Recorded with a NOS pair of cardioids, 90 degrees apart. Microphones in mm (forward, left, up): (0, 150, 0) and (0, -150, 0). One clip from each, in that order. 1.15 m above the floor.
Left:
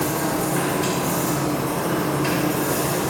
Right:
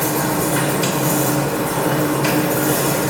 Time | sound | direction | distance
0.0 | a machine running | 55° right | 2 m